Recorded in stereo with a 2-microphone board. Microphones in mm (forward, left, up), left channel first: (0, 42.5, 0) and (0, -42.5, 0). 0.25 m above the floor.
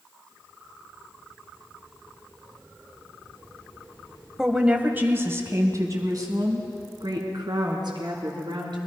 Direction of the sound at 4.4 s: 5° right (ahead or behind).